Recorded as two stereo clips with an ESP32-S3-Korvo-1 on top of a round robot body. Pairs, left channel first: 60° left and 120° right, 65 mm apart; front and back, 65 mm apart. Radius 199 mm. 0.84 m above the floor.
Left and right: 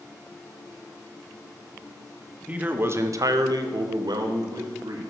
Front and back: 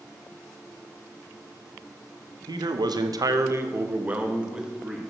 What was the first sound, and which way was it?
A man speaking, 170° left.